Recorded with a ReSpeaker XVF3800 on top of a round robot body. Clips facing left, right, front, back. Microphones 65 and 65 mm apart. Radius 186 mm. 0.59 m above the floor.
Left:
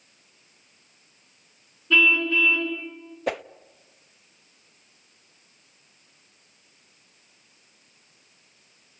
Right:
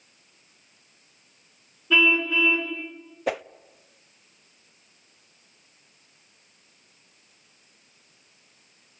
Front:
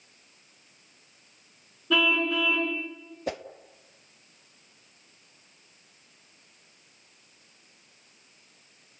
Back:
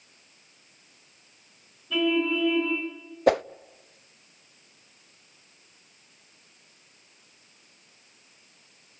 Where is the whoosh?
Straight behind, 0.7 m.